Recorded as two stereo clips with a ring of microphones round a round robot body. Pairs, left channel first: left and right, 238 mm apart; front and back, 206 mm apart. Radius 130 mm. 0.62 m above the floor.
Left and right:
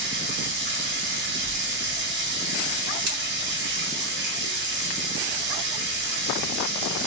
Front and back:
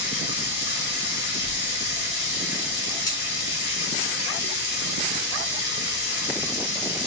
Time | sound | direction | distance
0.0 | running water | 45° right | 0.9 m
3.1 | scissors | 75° right | 1.1 m